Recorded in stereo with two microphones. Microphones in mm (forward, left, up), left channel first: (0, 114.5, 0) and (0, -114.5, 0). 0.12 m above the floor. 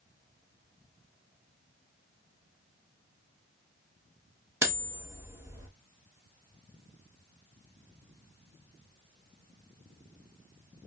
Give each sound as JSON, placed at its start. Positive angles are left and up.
{"t": 4.6, "sound": "cutlery clinking", "side_deg": -10, "distance_m": 0.8}